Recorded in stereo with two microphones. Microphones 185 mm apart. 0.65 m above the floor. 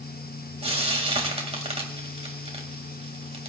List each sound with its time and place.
0.6 s frying: 35° right (ahead or behind), 1.9 m